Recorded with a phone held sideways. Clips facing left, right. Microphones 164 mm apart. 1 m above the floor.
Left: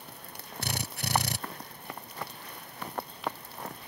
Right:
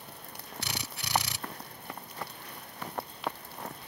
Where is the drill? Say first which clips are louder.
Left 6 dB; 50° left (ahead or behind).